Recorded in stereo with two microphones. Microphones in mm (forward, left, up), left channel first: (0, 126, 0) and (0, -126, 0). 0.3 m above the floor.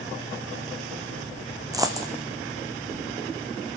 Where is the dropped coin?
15° right (ahead or behind), 1.8 m.